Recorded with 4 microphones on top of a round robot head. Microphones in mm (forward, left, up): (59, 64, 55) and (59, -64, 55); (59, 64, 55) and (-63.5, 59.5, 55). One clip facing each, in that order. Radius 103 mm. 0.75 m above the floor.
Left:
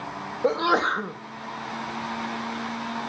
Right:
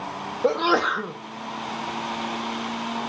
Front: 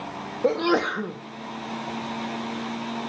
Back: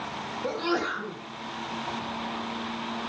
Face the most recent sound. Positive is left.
turn(degrees=-5)